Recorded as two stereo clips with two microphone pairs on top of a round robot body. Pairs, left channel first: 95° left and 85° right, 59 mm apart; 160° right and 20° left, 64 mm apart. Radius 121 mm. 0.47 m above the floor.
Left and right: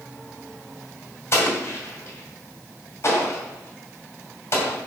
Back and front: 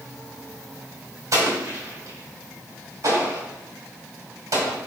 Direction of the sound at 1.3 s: 50° left.